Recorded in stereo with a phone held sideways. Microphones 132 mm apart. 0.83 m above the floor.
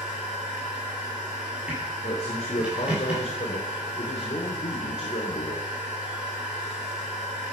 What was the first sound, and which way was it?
A machine running, 10° right (ahead or behind).